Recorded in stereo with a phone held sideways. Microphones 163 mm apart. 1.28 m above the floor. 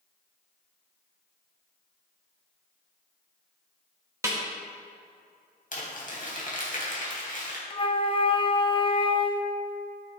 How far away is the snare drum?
About 1.9 m.